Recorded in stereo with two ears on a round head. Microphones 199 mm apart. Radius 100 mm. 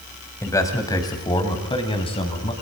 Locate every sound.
0.4 s a man speaking: 15° left (ahead or behind), 4.5 m; by 2.5 s 30° left (ahead or behind), 5.5 m